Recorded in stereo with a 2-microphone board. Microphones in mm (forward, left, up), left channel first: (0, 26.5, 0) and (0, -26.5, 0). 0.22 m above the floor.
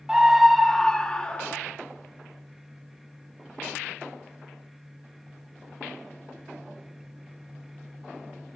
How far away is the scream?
About 1.5 m.